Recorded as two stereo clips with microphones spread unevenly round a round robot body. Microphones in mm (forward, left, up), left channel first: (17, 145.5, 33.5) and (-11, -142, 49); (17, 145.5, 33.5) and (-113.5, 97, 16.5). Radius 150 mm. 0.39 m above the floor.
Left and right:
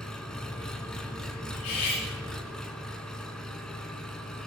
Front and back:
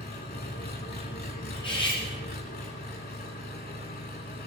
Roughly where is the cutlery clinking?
Left.